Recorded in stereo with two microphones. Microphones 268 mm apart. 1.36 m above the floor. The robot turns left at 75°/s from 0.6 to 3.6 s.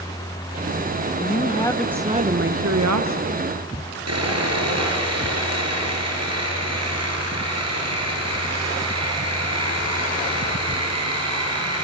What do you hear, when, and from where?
1.2 s a woman speaking: 50° left, 1.0 m; by 3.4 s 120° right, 1.0 m
4.1 s sawing: 70° right (ahead or behind), 4.5 m